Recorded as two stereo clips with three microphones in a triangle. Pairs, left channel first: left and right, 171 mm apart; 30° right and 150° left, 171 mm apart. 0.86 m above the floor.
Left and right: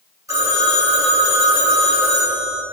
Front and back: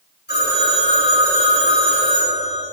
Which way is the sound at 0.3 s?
20° right.